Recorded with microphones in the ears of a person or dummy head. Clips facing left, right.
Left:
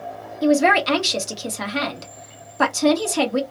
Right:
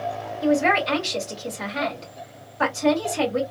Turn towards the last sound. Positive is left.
turn(degrees=65)  # may be behind; listen again after turning